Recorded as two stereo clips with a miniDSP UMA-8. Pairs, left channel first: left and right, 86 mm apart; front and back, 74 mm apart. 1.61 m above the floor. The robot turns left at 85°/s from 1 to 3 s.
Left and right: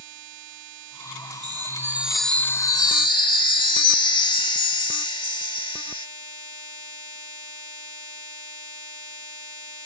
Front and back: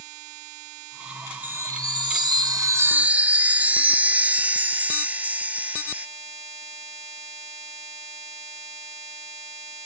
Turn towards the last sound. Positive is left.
turn(degrees=110)